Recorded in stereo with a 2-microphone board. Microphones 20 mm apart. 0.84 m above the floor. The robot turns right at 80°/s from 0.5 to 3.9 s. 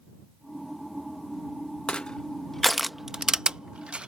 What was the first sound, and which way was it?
Crushing, 50° left (ahead or behind).